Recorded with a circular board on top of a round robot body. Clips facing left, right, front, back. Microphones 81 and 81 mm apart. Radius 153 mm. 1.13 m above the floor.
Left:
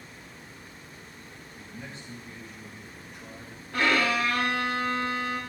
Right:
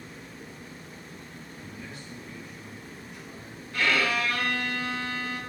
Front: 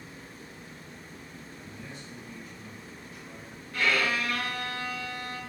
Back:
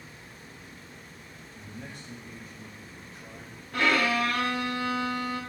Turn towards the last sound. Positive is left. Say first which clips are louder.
# left 1 dB, back 3 dB
turn(degrees=140)